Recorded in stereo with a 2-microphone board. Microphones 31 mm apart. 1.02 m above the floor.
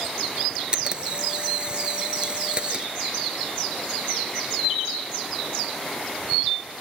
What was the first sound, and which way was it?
A camera shutter, 30° right (ahead or behind).